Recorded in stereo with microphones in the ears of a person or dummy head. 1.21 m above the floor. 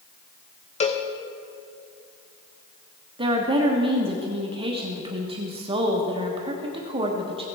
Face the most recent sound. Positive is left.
turn(degrees=-25)  # may be behind; listen again after turning